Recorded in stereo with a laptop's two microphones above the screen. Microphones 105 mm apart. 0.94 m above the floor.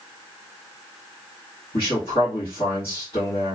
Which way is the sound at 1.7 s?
60° left (ahead or behind).